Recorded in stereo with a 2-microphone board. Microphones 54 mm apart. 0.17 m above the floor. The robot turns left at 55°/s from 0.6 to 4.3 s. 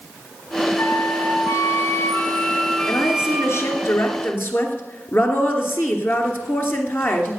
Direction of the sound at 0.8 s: 125° left.